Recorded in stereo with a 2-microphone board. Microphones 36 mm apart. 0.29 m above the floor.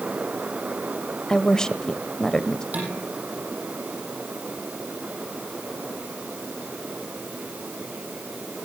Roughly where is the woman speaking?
Centre.